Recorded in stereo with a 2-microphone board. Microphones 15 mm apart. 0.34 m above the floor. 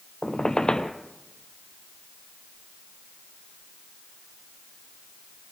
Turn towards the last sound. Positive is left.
turn(degrees=55)  # may be behind; listen again after turning